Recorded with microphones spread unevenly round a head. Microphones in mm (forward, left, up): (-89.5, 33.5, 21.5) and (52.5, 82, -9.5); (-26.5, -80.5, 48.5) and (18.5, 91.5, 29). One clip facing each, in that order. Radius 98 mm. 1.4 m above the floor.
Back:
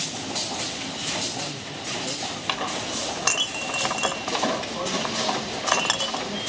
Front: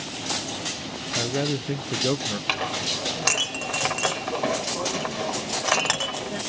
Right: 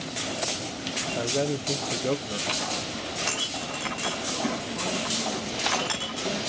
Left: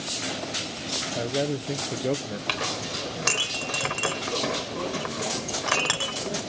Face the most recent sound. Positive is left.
turn(degrees=100)